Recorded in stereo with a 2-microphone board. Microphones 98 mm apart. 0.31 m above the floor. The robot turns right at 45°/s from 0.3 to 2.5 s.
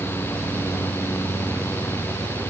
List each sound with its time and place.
Only background noise.